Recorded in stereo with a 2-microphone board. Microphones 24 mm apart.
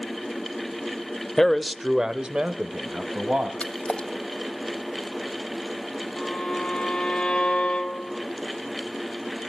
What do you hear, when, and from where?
1.4 s a man speaking: 15° left (ahead or behind), 0.9 m; by 3.5 s 60° right (ahead or behind), 1.8 m
3.6 s a splash: 50° left (ahead or behind), 1.9 m
6.2 s a violin: 45° left (ahead or behind), 1.6 m